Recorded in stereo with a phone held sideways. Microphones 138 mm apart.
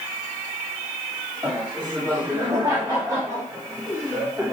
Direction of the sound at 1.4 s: 35° right (ahead or behind).